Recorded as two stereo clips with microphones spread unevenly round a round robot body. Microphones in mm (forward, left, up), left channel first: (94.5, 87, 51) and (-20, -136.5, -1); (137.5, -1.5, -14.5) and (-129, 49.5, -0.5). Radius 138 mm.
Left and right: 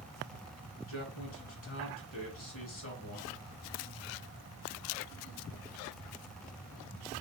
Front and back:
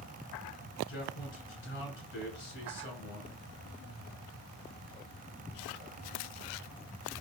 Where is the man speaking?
30° left, 2.5 m.